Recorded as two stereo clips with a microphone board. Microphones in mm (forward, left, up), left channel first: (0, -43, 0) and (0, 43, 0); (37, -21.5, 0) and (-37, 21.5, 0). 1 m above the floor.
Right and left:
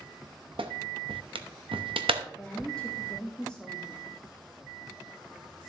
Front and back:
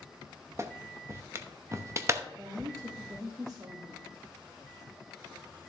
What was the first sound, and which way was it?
A clap, 90° left.